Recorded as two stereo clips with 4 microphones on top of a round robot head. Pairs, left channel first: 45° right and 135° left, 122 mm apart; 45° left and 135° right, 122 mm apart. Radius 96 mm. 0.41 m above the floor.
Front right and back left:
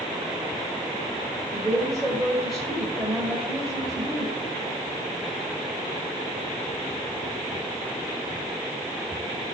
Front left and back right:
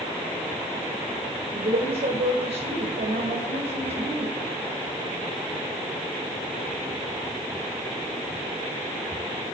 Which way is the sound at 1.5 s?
135° right.